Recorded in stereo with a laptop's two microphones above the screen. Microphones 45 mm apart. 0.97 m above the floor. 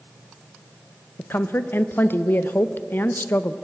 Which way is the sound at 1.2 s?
50° left (ahead or behind).